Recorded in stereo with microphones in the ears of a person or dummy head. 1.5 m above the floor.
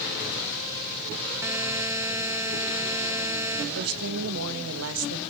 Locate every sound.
1.4 s a buzzer: 10° right (ahead or behind), 2.5 m
3.8 s a woman speaking: 85° right, 2 m